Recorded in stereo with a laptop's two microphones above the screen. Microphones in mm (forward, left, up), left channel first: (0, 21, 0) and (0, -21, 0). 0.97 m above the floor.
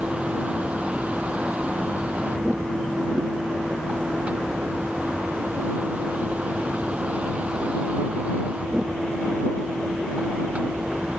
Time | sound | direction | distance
0.0 | a vehicle | 35° right (ahead or behind) | ?